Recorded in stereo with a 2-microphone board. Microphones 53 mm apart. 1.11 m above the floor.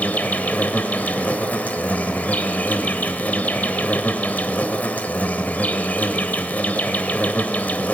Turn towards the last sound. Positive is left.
turn(degrees=30)  # may be behind; listen again after turning